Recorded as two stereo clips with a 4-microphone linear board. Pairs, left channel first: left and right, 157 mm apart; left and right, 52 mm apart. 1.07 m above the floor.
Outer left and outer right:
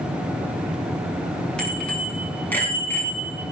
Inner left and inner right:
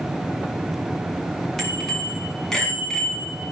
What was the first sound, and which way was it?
A bicycle bell, 5° left (ahead or behind).